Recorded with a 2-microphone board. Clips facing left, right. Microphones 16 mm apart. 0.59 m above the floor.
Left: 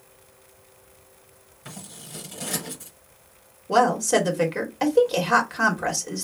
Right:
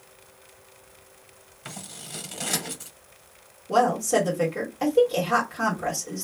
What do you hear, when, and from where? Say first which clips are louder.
1.6 s scissors: right 2 dB; 50° right (ahead or behind), 1.2 m
3.7 s a woman speaking: left 2 dB; 35° left (ahead or behind), 1.1 m